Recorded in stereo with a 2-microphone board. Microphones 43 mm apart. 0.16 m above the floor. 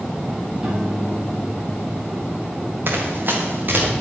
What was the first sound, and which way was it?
A piano, 20° right (ahead or behind).